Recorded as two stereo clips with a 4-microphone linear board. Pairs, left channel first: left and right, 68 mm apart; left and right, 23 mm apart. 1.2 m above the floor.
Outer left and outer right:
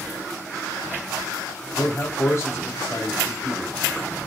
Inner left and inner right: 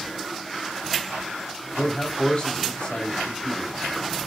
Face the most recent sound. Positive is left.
turn(degrees=40)  # may be behind; listen again after turning